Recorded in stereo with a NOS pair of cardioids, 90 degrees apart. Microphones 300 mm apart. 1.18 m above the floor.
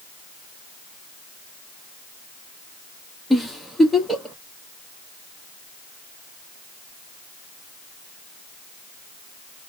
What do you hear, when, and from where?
3.3 s a giggle: straight ahead, 1.0 m